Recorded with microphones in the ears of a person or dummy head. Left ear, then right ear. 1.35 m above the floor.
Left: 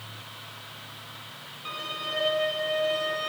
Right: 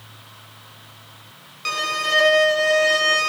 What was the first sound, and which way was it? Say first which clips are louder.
A violin: right 11 dB; 65° right (ahead or behind).